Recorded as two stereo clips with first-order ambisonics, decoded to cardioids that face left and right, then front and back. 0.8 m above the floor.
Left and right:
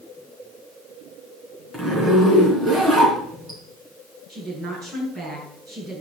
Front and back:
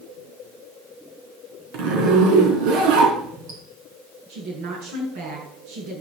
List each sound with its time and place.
1.7 s a zipper: 170° right, 4 m
4.3 s a woman speaking: 165° right, 7.5 m